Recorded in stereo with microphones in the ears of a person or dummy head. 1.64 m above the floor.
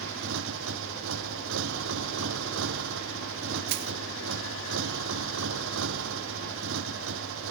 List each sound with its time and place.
0.0 s a motorcycle: 75° right (ahead or behind)
3.7 s crushing: 60° right (ahead or behind)